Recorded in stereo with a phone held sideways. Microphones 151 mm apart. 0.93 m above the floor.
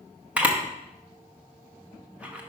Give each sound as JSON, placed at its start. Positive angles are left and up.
{"t": 0.4, "sound": "a camera shutter", "side_deg": -10, "distance_m": 1.0}